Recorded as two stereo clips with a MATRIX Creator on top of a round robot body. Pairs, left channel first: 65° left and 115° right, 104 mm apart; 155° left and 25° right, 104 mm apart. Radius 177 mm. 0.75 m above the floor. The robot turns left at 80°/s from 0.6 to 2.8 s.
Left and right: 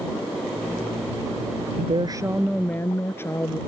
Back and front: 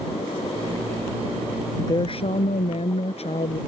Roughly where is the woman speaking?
Behind right.